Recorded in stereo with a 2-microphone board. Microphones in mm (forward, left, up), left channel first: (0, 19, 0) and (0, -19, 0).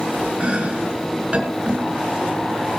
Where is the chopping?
35° right (ahead or behind), 3 m.